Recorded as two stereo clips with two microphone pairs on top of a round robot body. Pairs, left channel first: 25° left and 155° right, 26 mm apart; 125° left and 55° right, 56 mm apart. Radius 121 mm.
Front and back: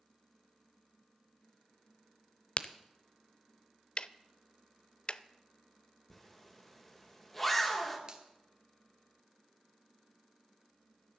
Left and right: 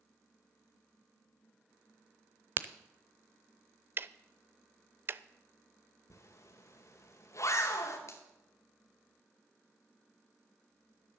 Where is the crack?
5° right, 0.7 m.